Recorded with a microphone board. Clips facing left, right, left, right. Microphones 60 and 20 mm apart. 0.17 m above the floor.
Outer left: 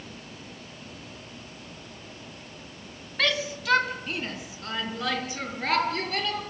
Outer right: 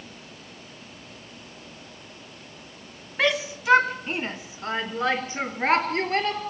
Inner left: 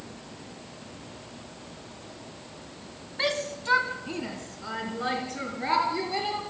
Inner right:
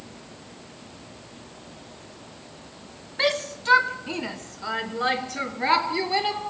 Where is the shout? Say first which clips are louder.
Outer right 3 dB, inner right 4 dB; 20° right (ahead or behind), 1.6 m; by 6.4 s 35° right (ahead or behind), 4 m.